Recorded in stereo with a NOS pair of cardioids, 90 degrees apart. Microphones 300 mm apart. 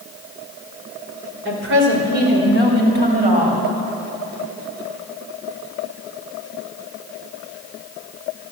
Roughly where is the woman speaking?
Ahead right.